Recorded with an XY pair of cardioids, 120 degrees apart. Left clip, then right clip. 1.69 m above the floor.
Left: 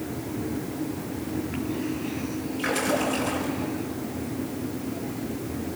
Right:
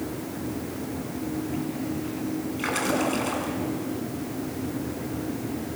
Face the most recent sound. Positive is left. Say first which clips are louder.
# left 1 dB
turn(degrees=-25)